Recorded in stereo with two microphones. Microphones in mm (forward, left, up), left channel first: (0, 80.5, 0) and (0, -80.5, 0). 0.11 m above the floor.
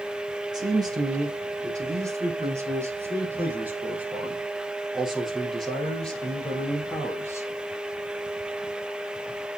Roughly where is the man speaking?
Right.